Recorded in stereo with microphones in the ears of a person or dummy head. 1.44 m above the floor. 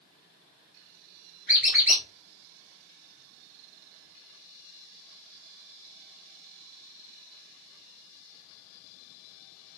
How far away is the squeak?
About 1.6 m.